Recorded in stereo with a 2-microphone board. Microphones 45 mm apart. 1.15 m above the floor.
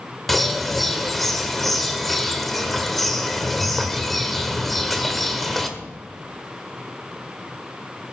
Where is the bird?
Centre (ahead or behind), 1.4 m.